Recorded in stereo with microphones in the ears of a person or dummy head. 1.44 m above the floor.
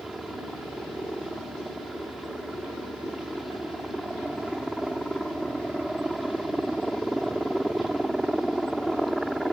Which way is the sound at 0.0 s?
Centre (ahead or behind).